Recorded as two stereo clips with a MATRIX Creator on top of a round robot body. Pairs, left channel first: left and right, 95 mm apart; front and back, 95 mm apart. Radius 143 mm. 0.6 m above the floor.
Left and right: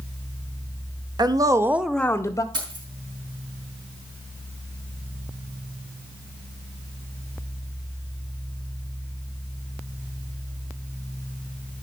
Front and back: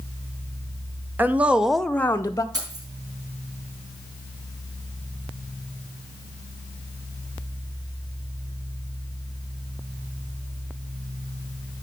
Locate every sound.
1.2 s a woman speaking: 115° right, 1.0 m; by 2.4 s 55° left, 0.9 m
2.5 s keys jangling: 130° right, 4 m